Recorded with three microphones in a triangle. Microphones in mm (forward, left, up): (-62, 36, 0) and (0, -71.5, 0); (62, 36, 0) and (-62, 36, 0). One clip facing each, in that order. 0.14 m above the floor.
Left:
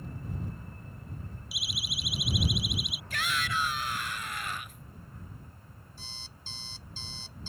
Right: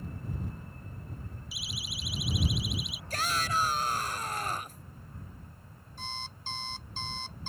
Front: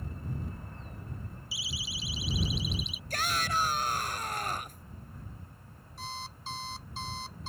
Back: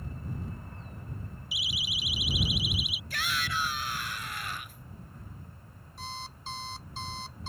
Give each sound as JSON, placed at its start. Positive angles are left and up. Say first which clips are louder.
{"t": 1.5, "sound": "a siren", "louder": "left 3 dB, back 3 dB", "azimuth_deg": 110}
{"t": 3.1, "sound": "a shout", "louder": "right 2 dB, front 3 dB", "azimuth_deg": -25}
{"t": 6.0, "sound": "an alarm clock", "louder": "right 13 dB, even", "azimuth_deg": -90}